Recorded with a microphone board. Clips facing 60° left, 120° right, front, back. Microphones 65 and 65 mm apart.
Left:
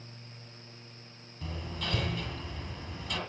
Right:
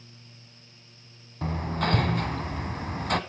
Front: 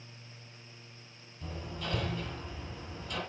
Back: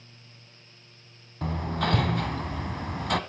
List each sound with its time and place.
1.4 s hammering: 160° right, 1.5 m